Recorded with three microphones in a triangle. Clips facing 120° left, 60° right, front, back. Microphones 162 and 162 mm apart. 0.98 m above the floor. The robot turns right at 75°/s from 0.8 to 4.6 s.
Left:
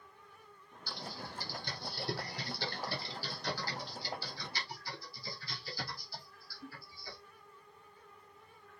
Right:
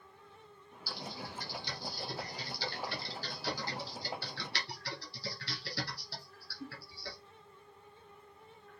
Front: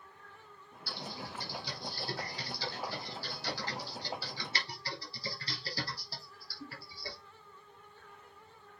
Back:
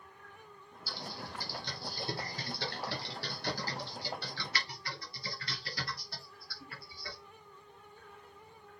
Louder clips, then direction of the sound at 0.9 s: Right 1 dB, front 1 dB; 20° left.